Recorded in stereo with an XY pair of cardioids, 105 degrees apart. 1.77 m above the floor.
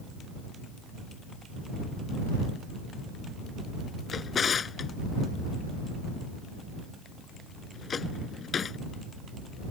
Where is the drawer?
40° left.